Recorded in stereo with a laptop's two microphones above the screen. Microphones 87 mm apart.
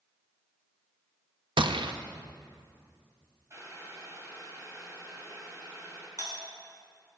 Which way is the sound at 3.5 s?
35° right (ahead or behind).